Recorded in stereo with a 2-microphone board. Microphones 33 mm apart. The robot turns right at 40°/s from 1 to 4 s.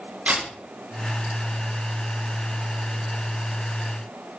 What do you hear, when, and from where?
0.3 s a camera shutter: 55° right (ahead or behind), 6 m